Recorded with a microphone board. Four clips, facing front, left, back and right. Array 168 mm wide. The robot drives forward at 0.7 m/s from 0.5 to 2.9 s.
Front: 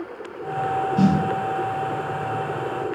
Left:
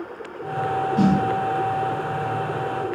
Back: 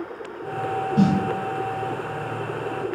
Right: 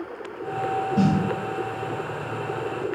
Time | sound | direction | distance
1.0 | a snare drum | 125° right | 1.5 m